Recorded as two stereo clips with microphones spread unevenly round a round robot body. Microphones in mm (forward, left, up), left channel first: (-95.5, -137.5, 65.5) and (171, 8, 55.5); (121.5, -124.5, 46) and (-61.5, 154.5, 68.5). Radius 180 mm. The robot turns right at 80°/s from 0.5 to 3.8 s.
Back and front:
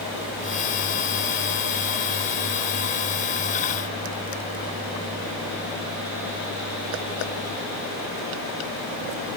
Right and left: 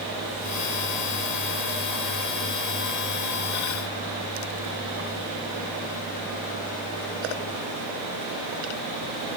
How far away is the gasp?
No gasp in this recording.